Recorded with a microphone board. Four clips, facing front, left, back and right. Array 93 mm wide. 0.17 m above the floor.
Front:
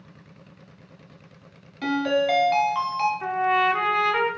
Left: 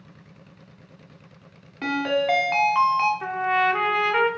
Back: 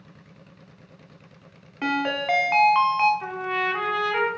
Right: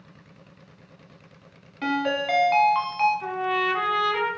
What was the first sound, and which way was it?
A ringtone, 165° left.